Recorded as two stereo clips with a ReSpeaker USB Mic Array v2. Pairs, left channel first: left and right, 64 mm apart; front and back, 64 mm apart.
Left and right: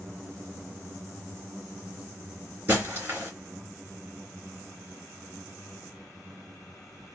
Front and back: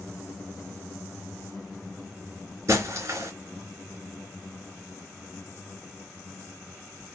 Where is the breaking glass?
150° right, 3 m.